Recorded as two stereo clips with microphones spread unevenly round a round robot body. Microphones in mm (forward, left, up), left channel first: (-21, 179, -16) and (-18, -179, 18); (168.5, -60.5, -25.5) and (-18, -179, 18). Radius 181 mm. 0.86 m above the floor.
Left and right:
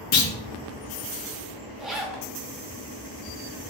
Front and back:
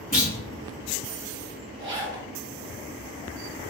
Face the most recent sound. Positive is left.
turn(degrees=-175)